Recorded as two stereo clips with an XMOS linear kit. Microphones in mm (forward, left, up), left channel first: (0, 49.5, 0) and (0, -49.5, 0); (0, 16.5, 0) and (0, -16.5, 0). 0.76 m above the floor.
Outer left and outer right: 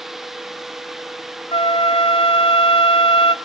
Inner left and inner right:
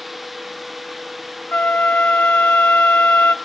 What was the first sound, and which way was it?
A flute, 65° left (ahead or behind).